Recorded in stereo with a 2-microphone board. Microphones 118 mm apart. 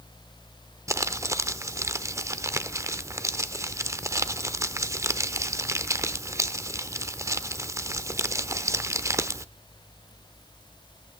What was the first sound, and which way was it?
Crumpling, 25° right (ahead or behind).